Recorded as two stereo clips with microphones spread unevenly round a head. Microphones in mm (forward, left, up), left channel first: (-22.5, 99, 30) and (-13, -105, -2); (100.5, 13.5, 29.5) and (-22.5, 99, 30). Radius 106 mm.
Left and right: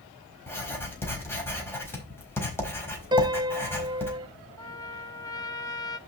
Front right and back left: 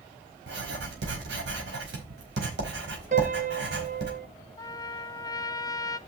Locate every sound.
0.5 s writing: 170° left, 4.5 m
3.1 s a piano: 160° right, 0.8 m
4.6 s a trumpet: 30° left, 0.8 m